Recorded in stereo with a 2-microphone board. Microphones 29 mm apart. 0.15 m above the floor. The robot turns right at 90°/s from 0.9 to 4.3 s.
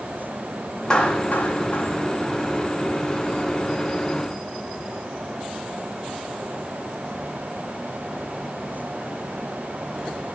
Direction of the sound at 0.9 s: 20° left (ahead or behind).